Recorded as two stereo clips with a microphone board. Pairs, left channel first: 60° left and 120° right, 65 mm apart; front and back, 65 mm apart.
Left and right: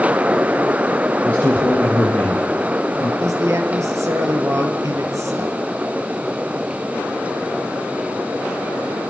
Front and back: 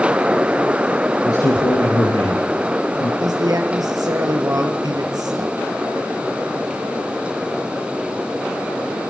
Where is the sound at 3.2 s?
160° right, 4 m.